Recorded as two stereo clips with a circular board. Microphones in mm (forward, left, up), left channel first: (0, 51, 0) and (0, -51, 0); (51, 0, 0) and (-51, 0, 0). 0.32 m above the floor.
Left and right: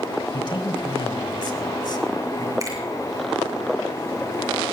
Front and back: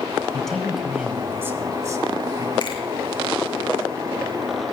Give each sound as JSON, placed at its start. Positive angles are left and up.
{"t": 0.3, "sound": "a man speaking", "azimuth_deg": 80, "distance_m": 1.6}
{"t": 2.6, "sound": "a finger snap", "azimuth_deg": -35, "distance_m": 6.0}